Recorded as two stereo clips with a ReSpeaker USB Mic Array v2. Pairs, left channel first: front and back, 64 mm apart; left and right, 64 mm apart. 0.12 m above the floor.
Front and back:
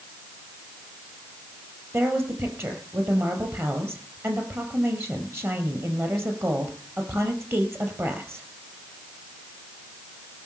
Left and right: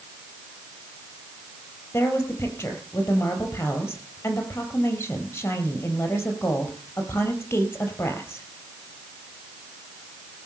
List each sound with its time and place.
1.9 s a woman speaking: 135° left, 3.5 m